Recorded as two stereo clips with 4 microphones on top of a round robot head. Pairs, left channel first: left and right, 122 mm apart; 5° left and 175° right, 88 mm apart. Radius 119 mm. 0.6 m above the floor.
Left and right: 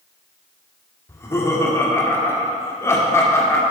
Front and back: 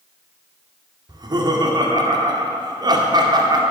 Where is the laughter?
155° left, 2.0 m.